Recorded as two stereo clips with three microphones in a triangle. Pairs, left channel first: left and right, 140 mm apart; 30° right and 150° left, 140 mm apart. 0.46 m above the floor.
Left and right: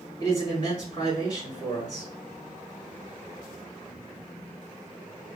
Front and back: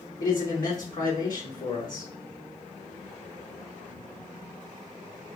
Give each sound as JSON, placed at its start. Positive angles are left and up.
{"t": 0.2, "sound": "a man speaking", "azimuth_deg": 35, "distance_m": 3.0}